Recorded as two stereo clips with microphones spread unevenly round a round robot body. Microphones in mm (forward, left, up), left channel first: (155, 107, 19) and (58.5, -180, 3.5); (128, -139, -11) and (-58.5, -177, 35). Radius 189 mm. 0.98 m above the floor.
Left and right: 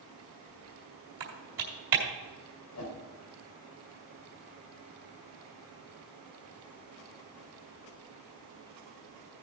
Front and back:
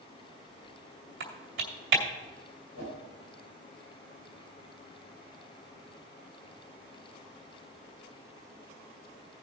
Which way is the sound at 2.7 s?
40° left.